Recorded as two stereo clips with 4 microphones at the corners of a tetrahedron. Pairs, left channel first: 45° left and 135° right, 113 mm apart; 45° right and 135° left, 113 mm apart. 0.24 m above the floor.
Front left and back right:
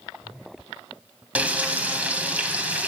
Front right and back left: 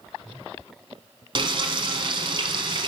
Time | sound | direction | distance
1.4 | frying | 150° left | 1.1 m